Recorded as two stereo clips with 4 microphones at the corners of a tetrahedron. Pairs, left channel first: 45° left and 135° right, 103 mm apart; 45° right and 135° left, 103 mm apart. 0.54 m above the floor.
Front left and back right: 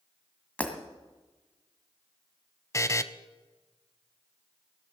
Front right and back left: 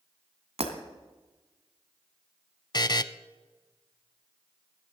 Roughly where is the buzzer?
Ahead.